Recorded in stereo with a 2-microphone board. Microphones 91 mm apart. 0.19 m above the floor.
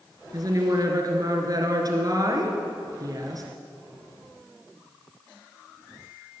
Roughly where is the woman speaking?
Right.